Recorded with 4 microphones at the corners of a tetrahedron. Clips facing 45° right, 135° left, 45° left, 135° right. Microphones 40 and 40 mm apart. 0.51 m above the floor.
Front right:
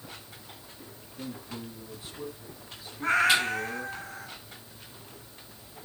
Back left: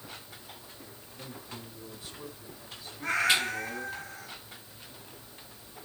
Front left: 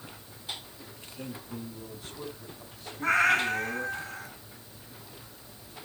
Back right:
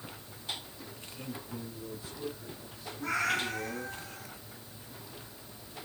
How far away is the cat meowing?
About 2.5 m.